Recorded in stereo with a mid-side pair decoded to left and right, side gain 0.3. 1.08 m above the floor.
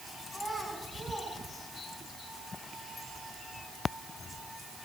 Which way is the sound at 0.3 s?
20° right.